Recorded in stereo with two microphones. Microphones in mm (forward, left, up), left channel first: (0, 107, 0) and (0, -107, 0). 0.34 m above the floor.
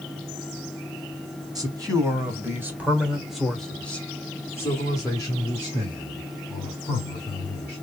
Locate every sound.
1.6 s a man speaking: 15° right (ahead or behind), 1.7 m; by 7.8 s 20° left (ahead or behind), 3 m